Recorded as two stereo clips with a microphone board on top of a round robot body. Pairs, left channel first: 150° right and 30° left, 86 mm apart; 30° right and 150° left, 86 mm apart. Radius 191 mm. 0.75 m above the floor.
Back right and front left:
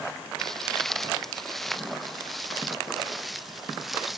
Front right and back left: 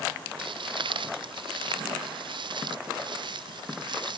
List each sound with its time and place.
0.4 s footsteps: 125° left; by 4.2 s 120° left